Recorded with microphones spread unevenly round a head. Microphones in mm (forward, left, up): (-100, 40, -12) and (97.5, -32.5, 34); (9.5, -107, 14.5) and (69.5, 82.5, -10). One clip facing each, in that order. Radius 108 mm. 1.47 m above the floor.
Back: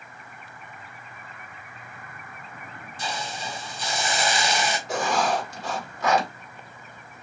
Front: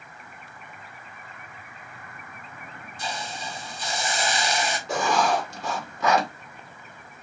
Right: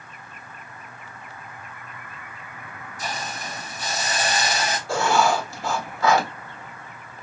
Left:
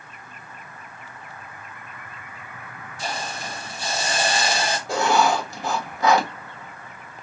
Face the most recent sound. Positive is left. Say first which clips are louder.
# front 2 dB, even
turn(degrees=0)